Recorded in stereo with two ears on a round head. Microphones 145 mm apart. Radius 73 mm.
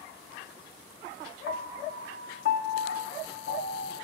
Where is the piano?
60° left (ahead or behind), 0.5 m.